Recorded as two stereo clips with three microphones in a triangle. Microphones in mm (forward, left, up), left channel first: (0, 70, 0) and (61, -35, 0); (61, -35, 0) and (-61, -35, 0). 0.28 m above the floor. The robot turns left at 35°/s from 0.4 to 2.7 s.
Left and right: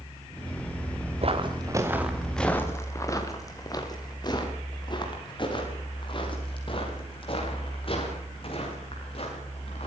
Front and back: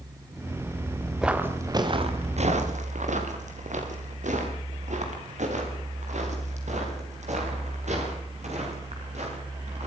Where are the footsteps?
95° right, 3 m; by 9.9 s 160° left, 13 m.